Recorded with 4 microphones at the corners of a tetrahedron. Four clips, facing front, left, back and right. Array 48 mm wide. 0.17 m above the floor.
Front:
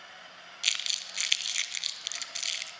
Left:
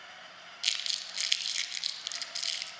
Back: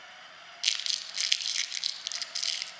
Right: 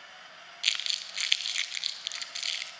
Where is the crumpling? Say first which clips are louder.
Right 3 dB, front 1 dB; 60° right, 0.6 m.